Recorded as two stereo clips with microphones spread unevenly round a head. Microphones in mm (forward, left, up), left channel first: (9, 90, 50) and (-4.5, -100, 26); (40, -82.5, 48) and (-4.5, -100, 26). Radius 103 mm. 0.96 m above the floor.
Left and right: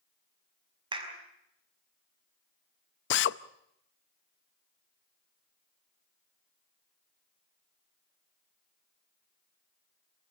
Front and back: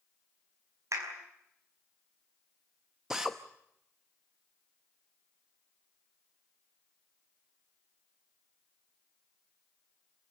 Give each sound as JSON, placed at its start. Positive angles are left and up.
{"t": 0.9, "sound": "a clap", "azimuth_deg": -160, "distance_m": 5.0}
{"t": 3.1, "sound": "a drill", "azimuth_deg": 120, "distance_m": 0.7}